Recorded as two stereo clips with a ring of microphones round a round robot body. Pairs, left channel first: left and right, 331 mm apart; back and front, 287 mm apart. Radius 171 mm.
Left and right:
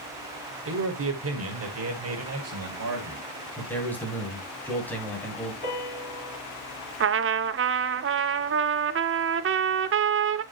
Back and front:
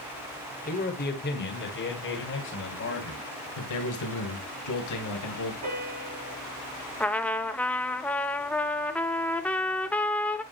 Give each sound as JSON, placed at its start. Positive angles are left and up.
{"t": 0.7, "sound": "a man speaking", "azimuth_deg": -125, "distance_m": 1.8}
{"t": 3.6, "sound": "a man speaking", "azimuth_deg": 175, "distance_m": 3.0}
{"t": 5.6, "sound": "a piano", "azimuth_deg": 30, "distance_m": 6.5}
{"t": 7.0, "sound": "a trumpet", "azimuth_deg": -100, "distance_m": 0.6}